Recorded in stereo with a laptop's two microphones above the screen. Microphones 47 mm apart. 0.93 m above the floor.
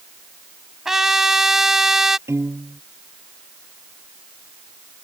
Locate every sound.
0.8 s a trumpet: 5° right (ahead or behind)
2.3 s a piano: 80° right